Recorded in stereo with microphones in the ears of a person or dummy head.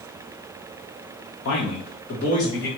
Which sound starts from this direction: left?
A man speaking, at 1.4 s.